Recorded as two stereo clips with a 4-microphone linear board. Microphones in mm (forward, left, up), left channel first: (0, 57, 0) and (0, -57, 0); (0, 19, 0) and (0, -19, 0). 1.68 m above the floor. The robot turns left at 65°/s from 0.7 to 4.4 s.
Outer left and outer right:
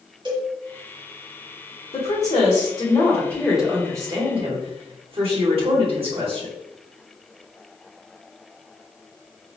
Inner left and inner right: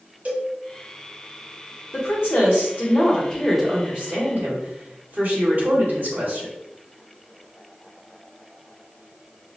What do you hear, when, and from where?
0.2 s a cowbell: 45° right (ahead or behind), 1.0 m
1.9 s a woman speaking: 105° left, 1.9 m; by 6.5 s 55° right, 1.9 m